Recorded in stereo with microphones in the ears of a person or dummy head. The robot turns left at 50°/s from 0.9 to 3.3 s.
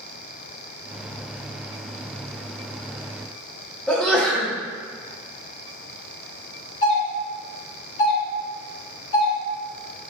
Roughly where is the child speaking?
No child speaking in this recording.